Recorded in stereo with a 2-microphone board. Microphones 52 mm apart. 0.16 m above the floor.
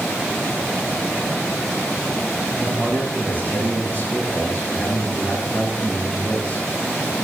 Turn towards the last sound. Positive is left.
turn(degrees=35)  # may be behind; listen again after turning